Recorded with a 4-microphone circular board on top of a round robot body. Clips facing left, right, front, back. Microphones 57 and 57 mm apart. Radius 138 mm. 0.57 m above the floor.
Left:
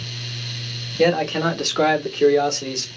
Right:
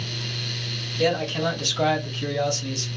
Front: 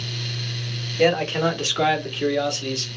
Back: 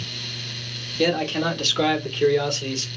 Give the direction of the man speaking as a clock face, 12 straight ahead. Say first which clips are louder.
Left 5 dB, front 3 dB; 10 o'clock.